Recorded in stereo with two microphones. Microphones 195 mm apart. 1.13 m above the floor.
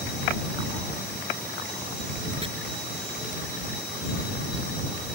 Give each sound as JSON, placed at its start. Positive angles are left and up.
{"t": 2.4, "sound": "chopping", "side_deg": -30}